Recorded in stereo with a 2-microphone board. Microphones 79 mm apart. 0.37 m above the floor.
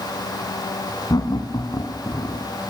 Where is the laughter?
60° left (ahead or behind), 3 m; by 2.4 s 45° left (ahead or behind), 3 m.